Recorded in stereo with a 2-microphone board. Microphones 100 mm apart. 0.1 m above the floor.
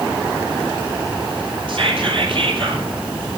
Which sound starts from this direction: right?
Whispering, at 1.7 s.